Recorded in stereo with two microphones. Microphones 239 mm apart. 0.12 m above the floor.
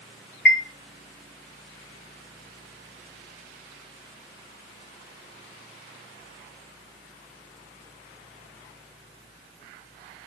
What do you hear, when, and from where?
0.5 s a chime: 55° left (ahead or behind), 0.8 m